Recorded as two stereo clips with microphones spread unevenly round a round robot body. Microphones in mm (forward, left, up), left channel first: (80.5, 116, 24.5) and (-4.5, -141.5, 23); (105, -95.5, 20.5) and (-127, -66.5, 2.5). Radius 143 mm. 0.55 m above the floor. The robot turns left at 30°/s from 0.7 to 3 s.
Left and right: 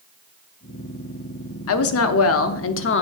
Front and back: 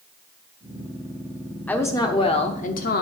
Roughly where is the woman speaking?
Left.